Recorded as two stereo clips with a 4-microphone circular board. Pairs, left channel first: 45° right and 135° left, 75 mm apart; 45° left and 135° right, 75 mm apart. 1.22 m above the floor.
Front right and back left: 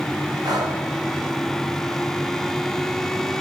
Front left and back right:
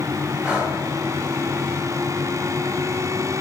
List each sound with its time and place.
0.4 s breathing: 145° left, 2.5 m